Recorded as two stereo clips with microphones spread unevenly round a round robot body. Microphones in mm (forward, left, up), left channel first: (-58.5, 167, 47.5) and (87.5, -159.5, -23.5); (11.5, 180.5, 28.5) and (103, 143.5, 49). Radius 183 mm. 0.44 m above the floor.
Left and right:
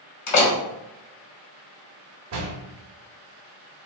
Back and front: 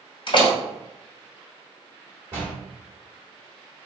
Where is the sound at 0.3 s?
160° left, 1.6 m.